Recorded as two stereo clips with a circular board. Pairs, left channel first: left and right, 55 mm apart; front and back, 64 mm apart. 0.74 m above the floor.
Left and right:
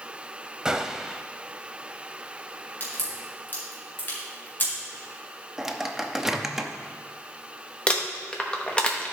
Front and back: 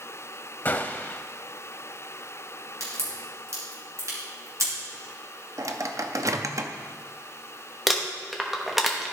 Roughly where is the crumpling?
Left.